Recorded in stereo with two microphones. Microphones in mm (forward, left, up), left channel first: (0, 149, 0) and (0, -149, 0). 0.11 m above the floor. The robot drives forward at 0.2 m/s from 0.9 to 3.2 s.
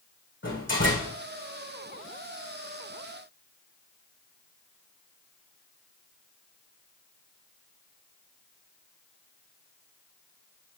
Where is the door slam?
40° left (ahead or behind), 4 m.